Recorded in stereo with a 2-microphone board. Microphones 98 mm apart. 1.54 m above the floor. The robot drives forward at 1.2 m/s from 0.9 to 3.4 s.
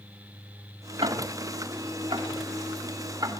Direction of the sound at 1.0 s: 75° right (ahead or behind).